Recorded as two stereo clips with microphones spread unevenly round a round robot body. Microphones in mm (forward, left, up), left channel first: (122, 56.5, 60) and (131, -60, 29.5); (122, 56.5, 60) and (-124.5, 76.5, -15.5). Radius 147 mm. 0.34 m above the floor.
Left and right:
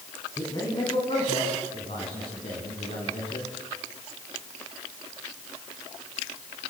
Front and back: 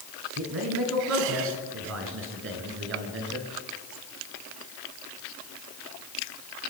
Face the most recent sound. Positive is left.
turn(degrees=140)